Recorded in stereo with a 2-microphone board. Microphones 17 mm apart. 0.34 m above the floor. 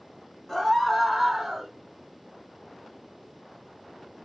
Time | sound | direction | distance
0.5 | a scream | 25° left (ahead or behind) | 1.5 m